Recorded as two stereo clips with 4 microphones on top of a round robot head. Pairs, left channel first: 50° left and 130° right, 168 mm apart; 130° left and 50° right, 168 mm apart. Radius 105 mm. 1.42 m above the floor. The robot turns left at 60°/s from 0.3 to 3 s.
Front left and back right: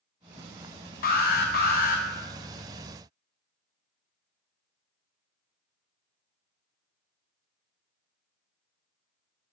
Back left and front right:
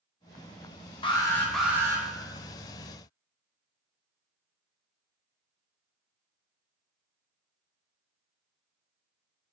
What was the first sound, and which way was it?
An alarm, 75° left.